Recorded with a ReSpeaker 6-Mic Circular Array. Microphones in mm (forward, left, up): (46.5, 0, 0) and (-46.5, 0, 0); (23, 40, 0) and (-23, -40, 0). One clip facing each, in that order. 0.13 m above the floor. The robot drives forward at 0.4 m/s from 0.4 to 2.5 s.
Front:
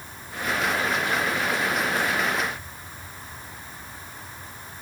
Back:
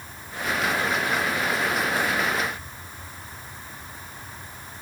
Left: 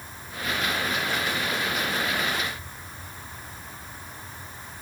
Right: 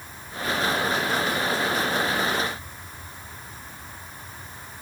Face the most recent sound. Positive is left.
No sound to turn to.